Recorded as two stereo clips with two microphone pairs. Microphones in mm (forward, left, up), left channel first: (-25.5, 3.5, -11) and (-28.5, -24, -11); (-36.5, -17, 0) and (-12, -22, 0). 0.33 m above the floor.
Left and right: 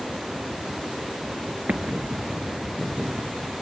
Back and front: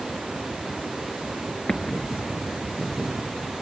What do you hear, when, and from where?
1.7 s an explosion: 125° right, 1.4 m